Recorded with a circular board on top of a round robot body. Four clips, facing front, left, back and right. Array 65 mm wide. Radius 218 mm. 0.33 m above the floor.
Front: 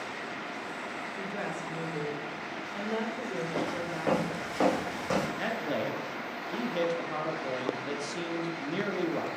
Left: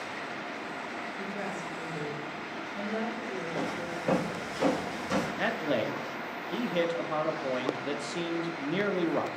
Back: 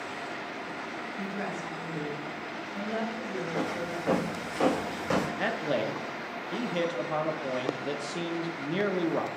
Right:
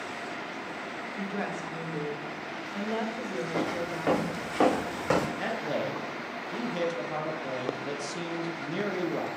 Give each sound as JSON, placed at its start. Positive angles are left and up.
{"t": 1.2, "sound": "a woman speaking", "azimuth_deg": -45, "distance_m": 2.5}
{"t": 3.5, "sound": "footsteps", "azimuth_deg": -55, "distance_m": 3.5}
{"t": 5.4, "sound": "a man speaking", "azimuth_deg": 120, "distance_m": 1.1}